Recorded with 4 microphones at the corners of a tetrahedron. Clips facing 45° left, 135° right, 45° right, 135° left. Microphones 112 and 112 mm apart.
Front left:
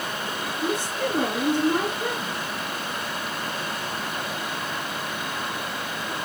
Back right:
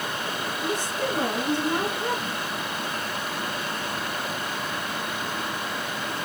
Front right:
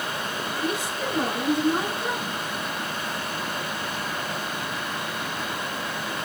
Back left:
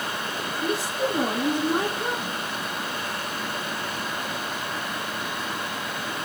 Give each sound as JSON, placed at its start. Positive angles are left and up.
{"t": 0.6, "sound": "a woman speaking", "azimuth_deg": 75, "distance_m": 4.5}